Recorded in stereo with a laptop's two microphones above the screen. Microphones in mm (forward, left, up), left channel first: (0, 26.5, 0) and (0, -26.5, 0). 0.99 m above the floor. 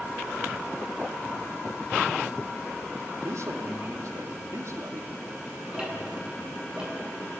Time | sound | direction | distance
3.2 | a man speaking | 70° right (ahead or behind) | 2.5 m
5.7 | ticking | 15° right (ahead or behind) | 9.5 m